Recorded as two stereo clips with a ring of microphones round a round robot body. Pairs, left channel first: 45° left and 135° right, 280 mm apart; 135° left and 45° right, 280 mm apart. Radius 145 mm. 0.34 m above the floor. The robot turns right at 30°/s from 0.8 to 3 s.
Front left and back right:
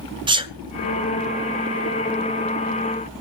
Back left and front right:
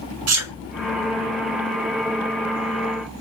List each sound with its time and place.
0.3 s a sneeze: 65° right, 2 m